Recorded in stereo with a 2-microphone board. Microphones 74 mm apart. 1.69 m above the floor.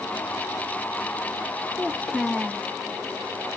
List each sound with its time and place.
1.8 s a child speaking: 5° left (ahead or behind), 0.6 m